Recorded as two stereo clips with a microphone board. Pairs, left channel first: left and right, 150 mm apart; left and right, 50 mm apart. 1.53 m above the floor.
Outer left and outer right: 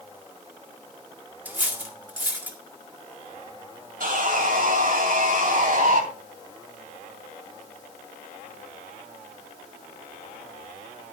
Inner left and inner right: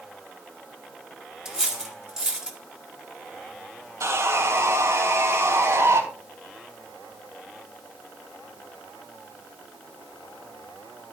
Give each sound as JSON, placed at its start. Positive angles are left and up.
{"t": 1.4, "sound": "cutlery clinking", "side_deg": -10, "distance_m": 2.0}
{"t": 4.0, "sound": "sawing", "side_deg": -70, "distance_m": 3.0}